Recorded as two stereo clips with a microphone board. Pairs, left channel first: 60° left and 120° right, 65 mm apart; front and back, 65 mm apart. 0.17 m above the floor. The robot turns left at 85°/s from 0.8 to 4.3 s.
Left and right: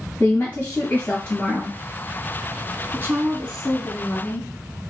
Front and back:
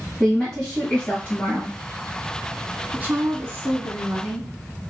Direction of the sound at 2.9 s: 135° right.